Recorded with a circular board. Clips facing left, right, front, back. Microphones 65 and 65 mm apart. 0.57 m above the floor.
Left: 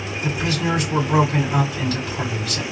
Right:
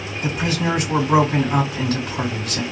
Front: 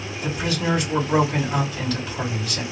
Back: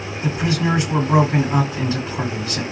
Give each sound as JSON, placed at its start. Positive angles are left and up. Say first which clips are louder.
{"t": 0.2, "sound": "a man speaking", "louder": "right 1 dB, back 3 dB", "azimuth_deg": -120, "distance_m": 1.8}